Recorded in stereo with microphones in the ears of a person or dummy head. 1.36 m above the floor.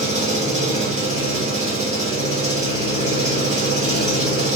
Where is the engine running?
35° right (ahead or behind), 0.7 m.